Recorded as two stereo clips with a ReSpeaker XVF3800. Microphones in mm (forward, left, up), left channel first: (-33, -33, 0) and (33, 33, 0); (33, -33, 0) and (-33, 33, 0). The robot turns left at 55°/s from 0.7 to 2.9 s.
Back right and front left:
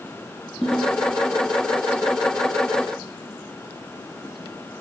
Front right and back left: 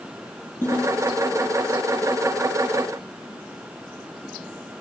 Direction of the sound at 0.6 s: 55° right.